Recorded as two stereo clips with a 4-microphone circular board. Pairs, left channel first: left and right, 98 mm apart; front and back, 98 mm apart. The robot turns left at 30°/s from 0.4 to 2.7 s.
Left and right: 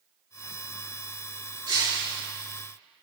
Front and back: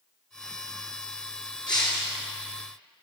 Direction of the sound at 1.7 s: 40° right.